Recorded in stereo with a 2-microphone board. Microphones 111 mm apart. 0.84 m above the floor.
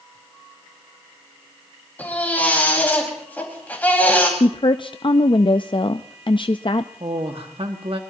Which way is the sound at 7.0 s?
55° right (ahead or behind).